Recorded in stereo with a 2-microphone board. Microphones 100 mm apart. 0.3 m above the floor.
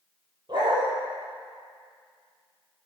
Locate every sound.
0.5 s a dog barking: 50° right (ahead or behind), 3.5 m